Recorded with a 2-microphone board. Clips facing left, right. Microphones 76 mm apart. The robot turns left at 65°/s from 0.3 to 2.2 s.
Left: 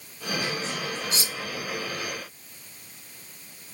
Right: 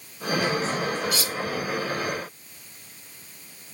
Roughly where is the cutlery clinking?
Left.